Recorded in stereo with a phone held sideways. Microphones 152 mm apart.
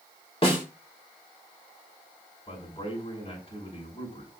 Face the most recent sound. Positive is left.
turn(degrees=30)  # may be behind; listen again after turning